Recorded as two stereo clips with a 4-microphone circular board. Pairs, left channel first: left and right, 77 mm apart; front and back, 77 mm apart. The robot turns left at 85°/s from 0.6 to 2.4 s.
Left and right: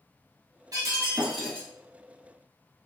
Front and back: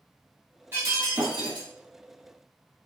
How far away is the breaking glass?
About 1.8 m.